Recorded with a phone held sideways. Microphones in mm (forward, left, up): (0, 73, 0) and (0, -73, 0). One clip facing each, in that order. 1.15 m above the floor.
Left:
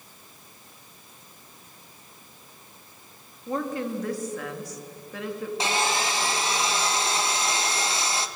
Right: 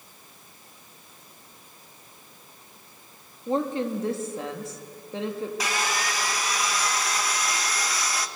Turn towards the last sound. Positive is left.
turn(degrees=25)  # may be behind; listen again after turning